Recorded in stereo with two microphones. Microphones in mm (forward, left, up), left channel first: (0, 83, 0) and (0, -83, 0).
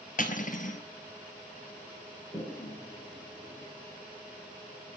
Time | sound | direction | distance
0.2 | cutlery clinking | 55° left (ahead or behind) | 1.3 m
2.3 | a toilet flushing | 25° left (ahead or behind) | 2.0 m